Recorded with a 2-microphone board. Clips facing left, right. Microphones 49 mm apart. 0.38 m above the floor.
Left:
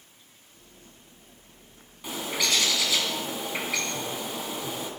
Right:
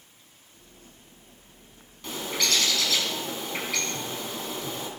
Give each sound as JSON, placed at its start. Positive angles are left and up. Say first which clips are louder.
{"t": 2.0, "sound": "a bird", "louder": "even", "side_deg": 15, "distance_m": 3.5}